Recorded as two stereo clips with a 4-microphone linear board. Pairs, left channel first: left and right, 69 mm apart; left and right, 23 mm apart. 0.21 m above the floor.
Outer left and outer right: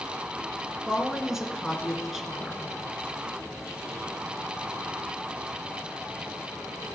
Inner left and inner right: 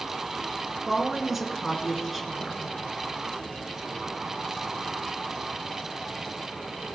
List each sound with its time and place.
0.9 s a woman speaking: 5° right (ahead or behind), 2.5 m